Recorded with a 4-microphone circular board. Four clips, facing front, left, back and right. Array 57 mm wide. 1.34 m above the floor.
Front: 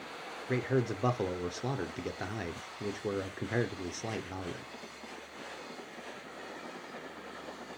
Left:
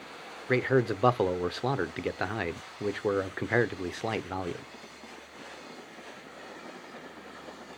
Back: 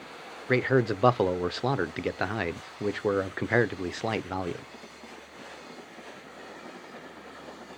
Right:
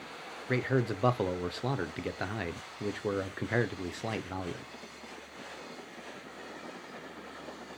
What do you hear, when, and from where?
0.5 s a man speaking: 150° left, 0.5 m